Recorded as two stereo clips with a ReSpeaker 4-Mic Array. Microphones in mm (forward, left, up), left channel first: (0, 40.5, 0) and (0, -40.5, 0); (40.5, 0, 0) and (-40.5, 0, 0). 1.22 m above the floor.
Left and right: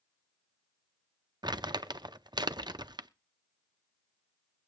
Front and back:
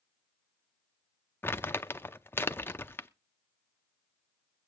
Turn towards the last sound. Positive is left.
turn(degrees=-65)